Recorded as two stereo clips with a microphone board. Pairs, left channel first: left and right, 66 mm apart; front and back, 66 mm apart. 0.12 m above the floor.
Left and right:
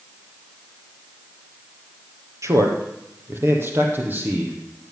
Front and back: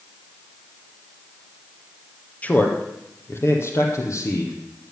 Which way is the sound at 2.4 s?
65° right.